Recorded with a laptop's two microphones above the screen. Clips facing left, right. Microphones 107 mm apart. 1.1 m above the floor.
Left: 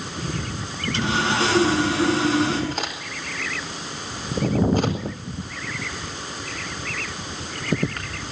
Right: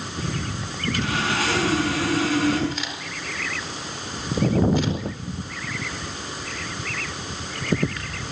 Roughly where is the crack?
Left.